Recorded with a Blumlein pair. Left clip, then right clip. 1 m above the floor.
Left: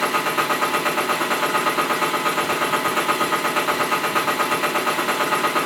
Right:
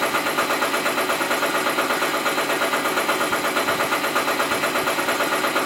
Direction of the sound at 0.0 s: Straight ahead.